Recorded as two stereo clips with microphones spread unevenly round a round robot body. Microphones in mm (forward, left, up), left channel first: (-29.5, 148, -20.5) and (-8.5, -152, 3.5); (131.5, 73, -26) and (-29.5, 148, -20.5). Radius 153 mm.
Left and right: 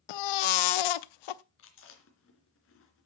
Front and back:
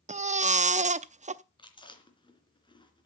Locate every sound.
0.1 s a baby crying: 100° left, 0.8 m
1.6 s chewing: 40° left, 3 m